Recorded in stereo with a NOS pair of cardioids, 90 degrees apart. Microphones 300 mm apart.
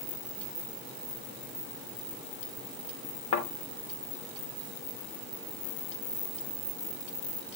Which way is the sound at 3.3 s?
60° left.